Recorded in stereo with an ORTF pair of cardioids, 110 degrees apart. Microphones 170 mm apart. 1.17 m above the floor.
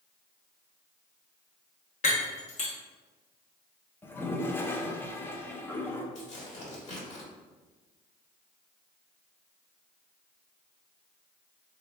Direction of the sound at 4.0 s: 15° left.